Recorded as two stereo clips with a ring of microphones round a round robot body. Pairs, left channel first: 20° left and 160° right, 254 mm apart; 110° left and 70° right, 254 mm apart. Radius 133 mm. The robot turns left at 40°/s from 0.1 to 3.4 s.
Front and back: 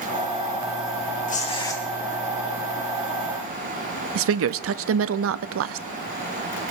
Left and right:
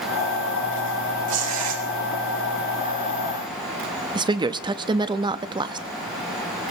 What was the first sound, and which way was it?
Tearing paper, 35° right.